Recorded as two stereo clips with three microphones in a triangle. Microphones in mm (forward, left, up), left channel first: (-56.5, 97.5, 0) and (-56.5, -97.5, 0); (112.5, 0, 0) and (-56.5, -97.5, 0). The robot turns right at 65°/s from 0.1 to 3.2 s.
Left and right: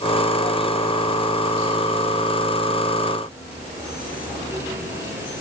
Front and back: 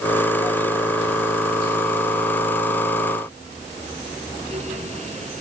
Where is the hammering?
I don't hear hammering.